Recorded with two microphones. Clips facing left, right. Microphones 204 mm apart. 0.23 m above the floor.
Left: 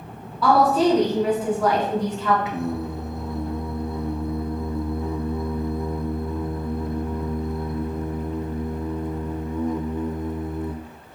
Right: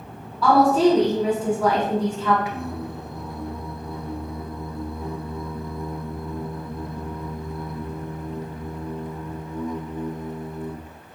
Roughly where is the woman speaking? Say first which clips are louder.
Right 1 dB; centre.